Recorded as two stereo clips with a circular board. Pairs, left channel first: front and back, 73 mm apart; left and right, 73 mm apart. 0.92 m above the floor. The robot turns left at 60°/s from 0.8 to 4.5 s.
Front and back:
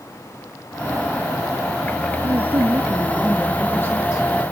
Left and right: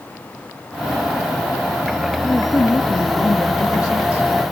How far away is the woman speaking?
About 1.3 m.